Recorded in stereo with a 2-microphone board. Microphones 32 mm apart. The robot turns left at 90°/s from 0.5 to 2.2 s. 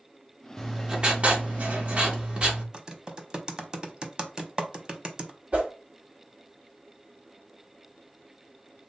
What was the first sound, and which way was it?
Writing, 10° left.